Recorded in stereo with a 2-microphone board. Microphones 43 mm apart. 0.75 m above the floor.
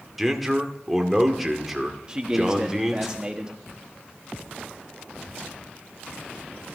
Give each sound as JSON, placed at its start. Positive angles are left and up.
{"t": 0.2, "sound": "a man speaking", "side_deg": 0, "distance_m": 1.6}
{"t": 2.1, "sound": "a man speaking", "side_deg": -20, "distance_m": 1.2}